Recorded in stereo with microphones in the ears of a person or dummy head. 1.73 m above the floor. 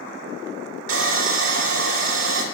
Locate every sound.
0.9 s sawing: 80° right, 2.5 m